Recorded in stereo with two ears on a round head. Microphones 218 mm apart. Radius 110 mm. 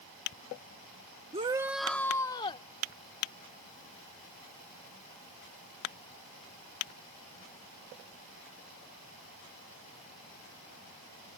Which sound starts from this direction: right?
A shout, at 1.3 s.